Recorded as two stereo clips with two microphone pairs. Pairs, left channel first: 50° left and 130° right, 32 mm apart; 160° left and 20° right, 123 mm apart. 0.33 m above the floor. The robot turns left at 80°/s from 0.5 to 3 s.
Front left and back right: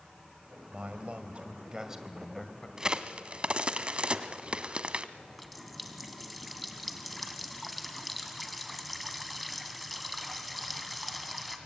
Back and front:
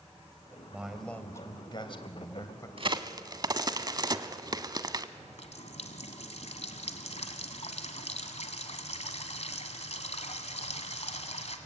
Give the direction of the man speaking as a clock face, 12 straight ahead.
3 o'clock.